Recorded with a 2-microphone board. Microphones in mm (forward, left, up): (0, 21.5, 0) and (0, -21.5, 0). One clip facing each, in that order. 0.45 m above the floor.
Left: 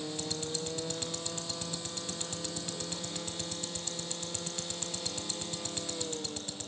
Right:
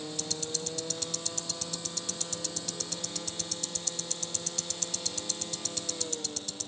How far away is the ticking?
About 1.3 m.